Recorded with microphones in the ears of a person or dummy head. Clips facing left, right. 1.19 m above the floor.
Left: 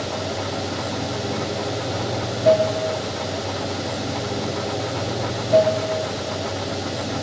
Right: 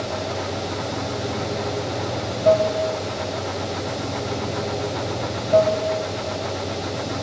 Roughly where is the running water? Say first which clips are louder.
Even; centre.